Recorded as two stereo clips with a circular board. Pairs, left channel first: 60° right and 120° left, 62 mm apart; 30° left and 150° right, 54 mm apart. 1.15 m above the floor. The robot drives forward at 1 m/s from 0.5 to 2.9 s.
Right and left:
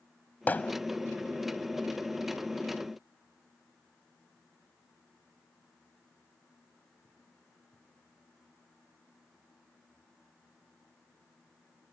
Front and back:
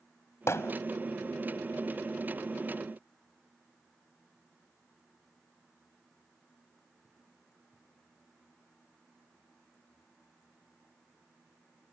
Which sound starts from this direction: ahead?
Hammering, at 0.5 s.